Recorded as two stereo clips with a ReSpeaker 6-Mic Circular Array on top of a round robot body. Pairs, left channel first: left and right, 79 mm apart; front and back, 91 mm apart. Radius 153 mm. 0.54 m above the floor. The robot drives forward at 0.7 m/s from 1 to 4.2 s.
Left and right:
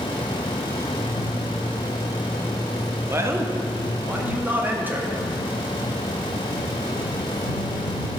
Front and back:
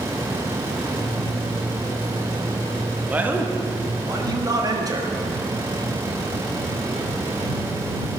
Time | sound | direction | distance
3.1 | a man speaking | 115° right | 1.3 m